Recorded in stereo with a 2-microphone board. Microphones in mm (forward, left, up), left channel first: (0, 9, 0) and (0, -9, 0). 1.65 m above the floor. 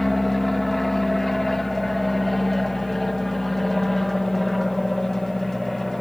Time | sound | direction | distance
0.0 | an aircraft | 5° left (ahead or behind) | ?